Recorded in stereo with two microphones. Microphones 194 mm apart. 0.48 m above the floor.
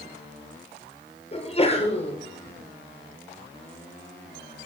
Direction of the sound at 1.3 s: 35° left (ahead or behind).